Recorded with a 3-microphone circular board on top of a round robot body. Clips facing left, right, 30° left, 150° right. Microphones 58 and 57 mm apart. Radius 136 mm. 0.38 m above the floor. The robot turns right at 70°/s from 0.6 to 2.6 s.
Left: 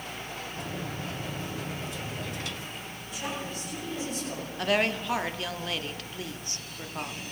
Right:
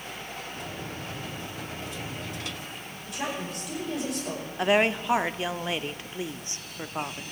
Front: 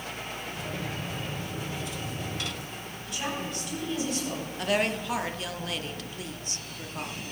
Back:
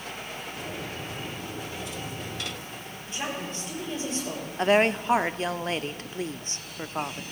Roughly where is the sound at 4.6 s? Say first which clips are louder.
Right 4 dB, back 6 dB; behind right.